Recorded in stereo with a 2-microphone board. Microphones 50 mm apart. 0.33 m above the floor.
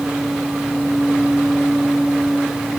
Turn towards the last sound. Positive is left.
No sound to turn to.